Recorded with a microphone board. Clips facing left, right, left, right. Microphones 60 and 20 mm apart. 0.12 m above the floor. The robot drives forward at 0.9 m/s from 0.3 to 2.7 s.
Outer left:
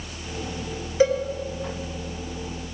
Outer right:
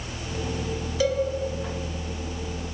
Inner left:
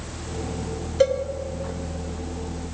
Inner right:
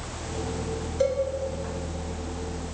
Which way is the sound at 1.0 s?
30° left (ahead or behind).